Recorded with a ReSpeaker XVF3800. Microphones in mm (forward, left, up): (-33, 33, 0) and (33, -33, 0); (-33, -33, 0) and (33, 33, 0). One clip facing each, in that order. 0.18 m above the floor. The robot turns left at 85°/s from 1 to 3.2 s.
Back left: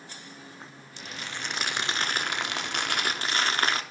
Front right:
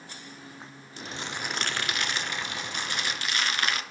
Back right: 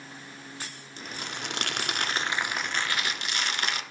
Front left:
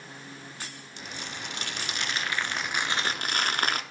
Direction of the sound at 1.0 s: 90° right.